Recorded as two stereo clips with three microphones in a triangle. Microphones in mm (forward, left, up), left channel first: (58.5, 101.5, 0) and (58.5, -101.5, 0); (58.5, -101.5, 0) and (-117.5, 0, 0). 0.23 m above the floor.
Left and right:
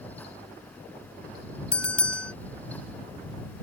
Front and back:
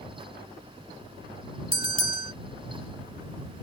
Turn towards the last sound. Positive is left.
turn(degrees=165)